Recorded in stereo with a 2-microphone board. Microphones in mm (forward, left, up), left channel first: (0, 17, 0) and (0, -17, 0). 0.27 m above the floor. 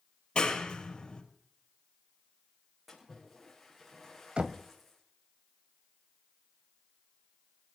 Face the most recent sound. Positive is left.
turn(degrees=-35)  # may be behind; listen again after turning